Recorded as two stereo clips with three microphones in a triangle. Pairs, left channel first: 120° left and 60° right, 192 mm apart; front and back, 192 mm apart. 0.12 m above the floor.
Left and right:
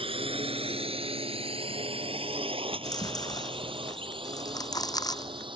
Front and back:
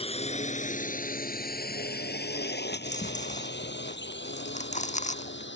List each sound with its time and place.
0.0 s a drone: 25° right; by 5.6 s 5° left
2.7 s chewing: 50° left